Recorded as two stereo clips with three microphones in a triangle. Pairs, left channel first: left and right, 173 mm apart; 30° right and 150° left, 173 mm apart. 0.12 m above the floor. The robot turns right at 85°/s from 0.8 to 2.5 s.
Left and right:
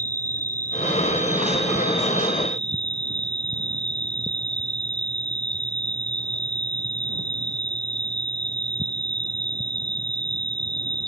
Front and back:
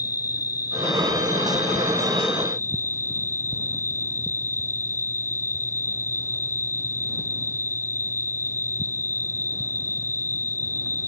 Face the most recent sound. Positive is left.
turn(degrees=45)